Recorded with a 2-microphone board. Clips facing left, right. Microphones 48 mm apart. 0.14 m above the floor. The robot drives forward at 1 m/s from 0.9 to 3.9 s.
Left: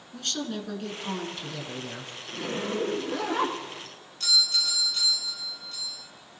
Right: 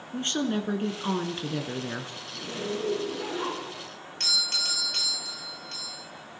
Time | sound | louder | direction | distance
0.1 | a woman speaking | right 5 dB | 35° right (ahead or behind) | 2.0 m
2.3 | a zipper | left 3 dB | 65° left (ahead or behind) | 6 m
4.2 | a doorbell | left 4 dB | 65° right (ahead or behind) | 3.5 m